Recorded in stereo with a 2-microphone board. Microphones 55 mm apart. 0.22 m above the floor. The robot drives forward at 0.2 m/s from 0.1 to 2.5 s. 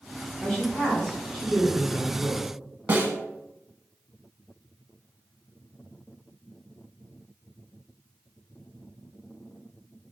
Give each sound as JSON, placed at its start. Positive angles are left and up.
{"t": 0.4, "sound": "a woman speaking", "side_deg": 10, "distance_m": 1.2}
{"t": 2.9, "sound": "a snare drum", "side_deg": -40, "distance_m": 0.5}